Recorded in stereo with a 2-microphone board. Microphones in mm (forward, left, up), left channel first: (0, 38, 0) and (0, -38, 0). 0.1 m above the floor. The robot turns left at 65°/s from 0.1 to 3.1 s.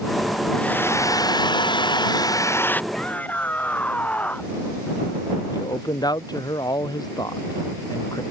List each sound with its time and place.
0.5 s a hair dryer: 170° left; by 2.8 s 20° left
2.9 s a shout: 5° left (ahead or behind); by 4.6 s 20° left (ahead or behind)
5.5 s a man speaking: 60° left (ahead or behind)